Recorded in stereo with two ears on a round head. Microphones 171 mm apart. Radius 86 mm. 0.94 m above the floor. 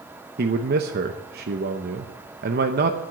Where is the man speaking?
50° right (ahead or behind), 0.8 m.